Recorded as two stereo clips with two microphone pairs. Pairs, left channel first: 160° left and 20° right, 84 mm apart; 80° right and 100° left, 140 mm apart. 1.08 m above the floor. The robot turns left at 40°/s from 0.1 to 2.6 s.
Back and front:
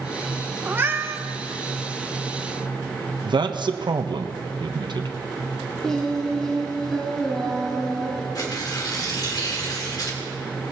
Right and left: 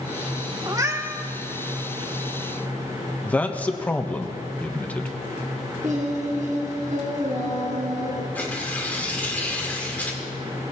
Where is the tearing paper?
160° right, 2 m.